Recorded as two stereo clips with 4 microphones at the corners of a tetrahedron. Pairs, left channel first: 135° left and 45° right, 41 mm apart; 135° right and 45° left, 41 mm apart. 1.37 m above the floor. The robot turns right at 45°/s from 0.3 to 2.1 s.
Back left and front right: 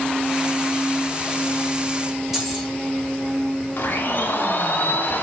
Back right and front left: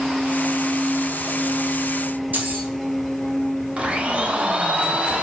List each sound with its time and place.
2.3 s keys jangling: 35° left, 0.8 m
3.8 s a blender: 105° left, 0.5 m